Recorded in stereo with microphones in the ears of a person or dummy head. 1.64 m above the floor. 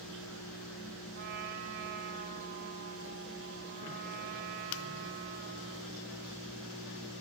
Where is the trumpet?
50° right (ahead or behind), 3.5 m.